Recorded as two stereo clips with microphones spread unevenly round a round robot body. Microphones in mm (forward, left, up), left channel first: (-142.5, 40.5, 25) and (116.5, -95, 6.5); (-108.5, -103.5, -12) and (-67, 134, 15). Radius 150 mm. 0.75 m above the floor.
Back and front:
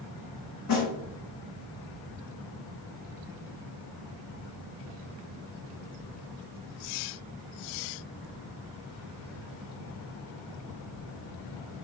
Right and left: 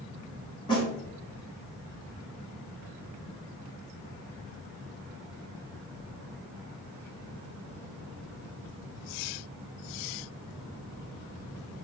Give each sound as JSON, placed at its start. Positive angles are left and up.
{"t": 0.7, "sound": "a snare drum", "azimuth_deg": -175, "distance_m": 1.7}